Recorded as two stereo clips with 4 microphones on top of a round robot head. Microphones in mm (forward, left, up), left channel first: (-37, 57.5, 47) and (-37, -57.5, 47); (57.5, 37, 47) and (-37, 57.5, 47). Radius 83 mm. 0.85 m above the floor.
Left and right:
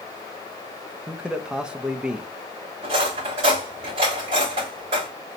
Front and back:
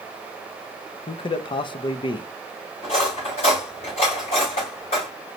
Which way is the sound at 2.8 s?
45° right.